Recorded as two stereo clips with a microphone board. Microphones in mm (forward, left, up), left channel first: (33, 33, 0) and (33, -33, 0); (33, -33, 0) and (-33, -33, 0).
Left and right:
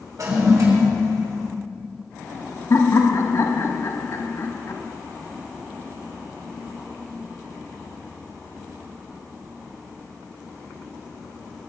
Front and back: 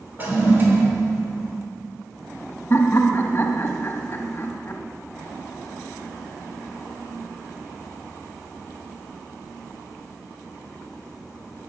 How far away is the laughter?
About 1.4 m.